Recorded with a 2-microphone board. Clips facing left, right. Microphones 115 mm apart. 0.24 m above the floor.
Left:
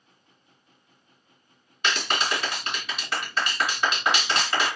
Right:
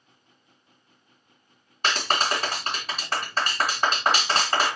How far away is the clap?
About 1.7 m.